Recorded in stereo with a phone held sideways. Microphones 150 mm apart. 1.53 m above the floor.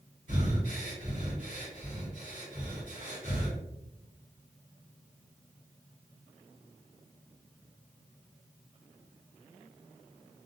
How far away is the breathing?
About 1.7 m.